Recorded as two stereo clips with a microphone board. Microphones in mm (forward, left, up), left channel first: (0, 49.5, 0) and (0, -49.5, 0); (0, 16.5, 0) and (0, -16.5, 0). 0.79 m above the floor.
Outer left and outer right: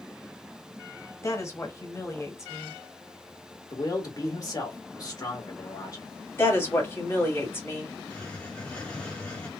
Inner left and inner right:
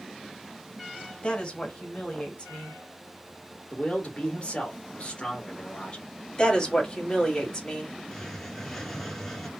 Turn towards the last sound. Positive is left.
turn(degrees=15)  # may be behind; listen again after turning